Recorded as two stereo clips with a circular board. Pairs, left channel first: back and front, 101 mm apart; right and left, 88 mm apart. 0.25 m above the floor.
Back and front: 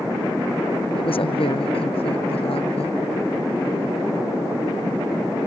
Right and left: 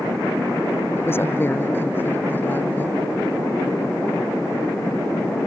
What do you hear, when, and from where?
0.9 s a woman speaking: 155° right; by 3.0 s 160° right